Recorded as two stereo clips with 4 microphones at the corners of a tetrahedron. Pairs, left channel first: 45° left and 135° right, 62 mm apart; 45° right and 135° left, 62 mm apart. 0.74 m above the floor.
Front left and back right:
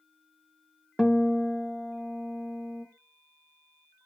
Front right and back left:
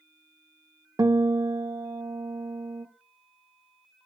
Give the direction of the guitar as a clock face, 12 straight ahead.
8 o'clock.